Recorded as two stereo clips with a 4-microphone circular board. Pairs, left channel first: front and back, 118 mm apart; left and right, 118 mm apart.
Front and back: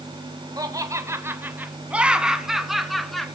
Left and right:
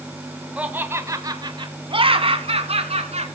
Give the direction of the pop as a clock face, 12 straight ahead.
I don't hear a pop.